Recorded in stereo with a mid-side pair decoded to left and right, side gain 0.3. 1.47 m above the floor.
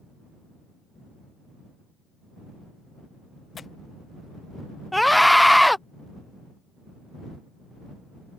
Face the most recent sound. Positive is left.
turn(degrees=5)